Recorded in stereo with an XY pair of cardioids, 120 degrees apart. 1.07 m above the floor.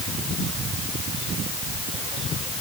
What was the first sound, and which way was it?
Only background noise.